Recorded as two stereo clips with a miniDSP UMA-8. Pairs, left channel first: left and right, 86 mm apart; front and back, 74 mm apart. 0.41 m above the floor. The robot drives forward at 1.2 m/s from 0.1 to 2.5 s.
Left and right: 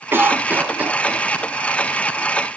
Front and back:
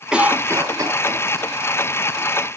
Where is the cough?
115° right, 1.0 m; by 2.3 s 170° right, 3 m.